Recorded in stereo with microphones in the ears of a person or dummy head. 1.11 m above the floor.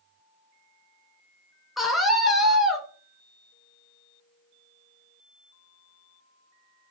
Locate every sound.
1.8 s a scream: centre (ahead or behind), 0.6 m